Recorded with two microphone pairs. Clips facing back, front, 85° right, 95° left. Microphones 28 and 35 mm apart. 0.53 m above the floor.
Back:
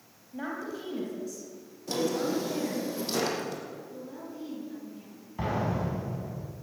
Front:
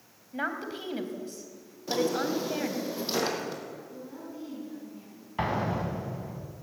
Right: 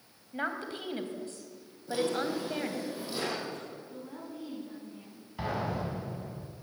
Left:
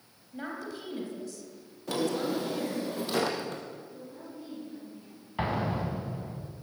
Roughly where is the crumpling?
No crumpling in this recording.